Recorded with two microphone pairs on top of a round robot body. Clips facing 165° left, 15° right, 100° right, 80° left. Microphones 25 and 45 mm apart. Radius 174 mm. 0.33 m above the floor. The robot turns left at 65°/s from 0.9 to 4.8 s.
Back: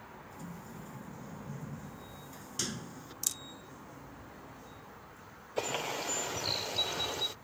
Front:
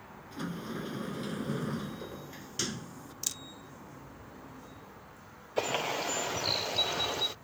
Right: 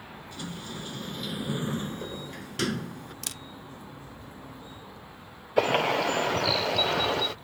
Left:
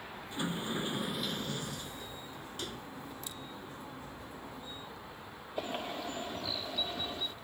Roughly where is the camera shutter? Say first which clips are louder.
Even, right 4 dB; right.